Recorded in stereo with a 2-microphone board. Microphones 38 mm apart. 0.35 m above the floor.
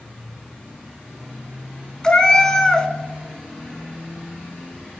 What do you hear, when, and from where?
2.0 s a cat meowing: 20° left (ahead or behind), 0.5 m